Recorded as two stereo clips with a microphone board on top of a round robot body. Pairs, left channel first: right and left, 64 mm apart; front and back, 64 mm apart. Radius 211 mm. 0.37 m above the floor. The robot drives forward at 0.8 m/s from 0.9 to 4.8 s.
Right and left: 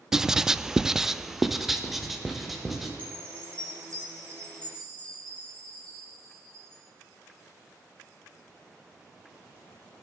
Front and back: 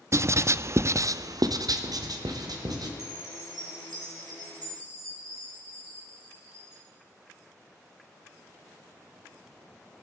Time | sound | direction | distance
0.1 | writing | 170° left | 0.5 m
3.0 | a chime | 160° right | 3 m